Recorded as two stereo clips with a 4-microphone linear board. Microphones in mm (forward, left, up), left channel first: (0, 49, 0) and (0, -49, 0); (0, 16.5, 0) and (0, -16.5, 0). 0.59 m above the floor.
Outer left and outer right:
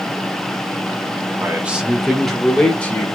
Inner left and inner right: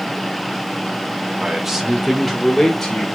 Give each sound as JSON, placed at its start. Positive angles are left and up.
{"t": 1.4, "sound": "a man speaking", "side_deg": -20, "distance_m": 1.0}